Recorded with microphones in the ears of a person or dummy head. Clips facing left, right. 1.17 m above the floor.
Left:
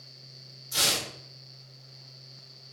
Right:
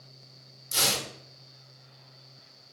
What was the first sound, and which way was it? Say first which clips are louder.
Tearing paper: right 1 dB; 60° right (ahead or behind).